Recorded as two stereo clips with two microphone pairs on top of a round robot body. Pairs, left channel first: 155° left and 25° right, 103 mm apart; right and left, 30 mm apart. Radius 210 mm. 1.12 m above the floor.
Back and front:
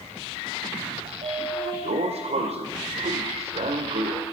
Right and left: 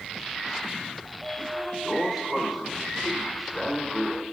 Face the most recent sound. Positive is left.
turn(degrees=-5)